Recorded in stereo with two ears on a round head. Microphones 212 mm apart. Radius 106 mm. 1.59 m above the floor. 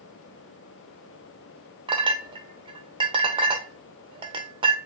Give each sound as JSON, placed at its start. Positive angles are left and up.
{"t": 1.9, "sound": "a clink", "side_deg": -20, "distance_m": 0.8}